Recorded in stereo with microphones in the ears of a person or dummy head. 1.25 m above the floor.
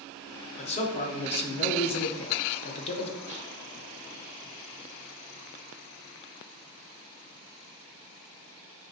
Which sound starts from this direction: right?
A snare drum, at 3.3 s.